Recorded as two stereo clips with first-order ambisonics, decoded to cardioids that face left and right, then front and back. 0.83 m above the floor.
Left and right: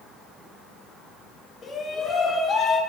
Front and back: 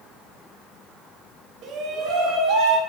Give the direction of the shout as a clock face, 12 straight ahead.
7 o'clock.